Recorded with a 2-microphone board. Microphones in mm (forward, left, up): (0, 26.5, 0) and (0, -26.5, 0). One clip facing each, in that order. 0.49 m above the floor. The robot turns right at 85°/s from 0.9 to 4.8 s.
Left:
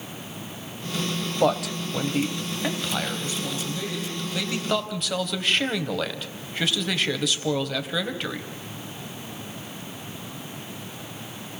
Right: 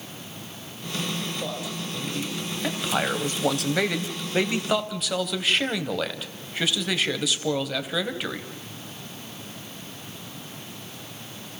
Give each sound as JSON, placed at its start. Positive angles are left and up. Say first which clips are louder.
{"t": 1.4, "sound": "a man speaking", "louder": "left 9 dB", "azimuth_deg": 70, "distance_m": 2.5}